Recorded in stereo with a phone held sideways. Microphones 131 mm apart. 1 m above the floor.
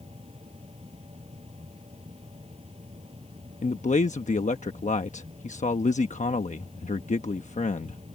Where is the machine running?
50° right (ahead or behind).